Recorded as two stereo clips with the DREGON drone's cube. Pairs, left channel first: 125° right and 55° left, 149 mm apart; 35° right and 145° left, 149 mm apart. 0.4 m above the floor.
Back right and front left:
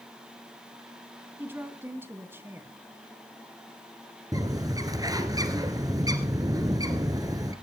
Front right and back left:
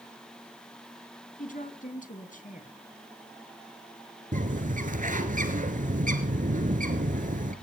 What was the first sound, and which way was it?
A woman speaking, 20° right.